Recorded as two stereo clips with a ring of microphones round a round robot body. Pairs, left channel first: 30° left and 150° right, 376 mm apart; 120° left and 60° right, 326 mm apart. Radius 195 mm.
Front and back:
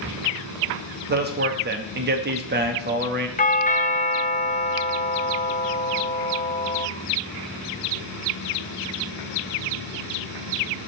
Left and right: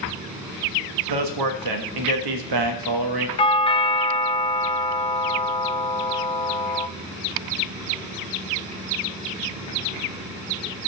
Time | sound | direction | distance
1.1 | a man speaking | 85° right | 1.0 m
3.4 | a doorbell | 70° left | 0.7 m